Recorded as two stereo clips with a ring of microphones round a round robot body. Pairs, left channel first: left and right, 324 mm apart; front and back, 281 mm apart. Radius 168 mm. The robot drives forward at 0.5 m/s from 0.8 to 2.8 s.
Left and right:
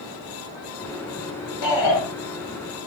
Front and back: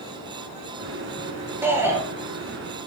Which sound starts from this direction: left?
A shout, at 1.6 s.